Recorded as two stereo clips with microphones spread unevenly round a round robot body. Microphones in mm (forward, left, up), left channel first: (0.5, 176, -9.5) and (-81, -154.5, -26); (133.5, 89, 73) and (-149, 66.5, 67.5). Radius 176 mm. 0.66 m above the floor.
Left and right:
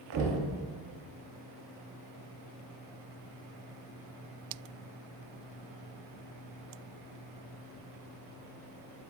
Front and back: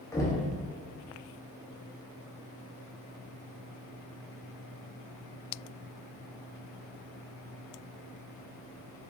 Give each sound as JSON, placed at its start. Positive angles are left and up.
{"t": 0.1, "sound": "knocking", "azimuth_deg": -75, "distance_m": 0.6}